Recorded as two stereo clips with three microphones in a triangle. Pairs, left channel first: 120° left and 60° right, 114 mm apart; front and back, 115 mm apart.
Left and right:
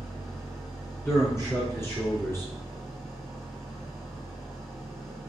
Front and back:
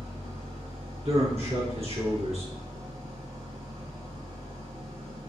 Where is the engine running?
155° right, 3 m.